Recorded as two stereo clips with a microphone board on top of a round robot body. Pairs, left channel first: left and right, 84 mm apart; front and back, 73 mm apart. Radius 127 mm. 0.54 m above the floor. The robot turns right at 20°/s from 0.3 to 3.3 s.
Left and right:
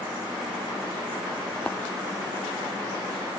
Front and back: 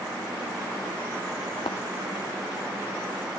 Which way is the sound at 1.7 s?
10° left.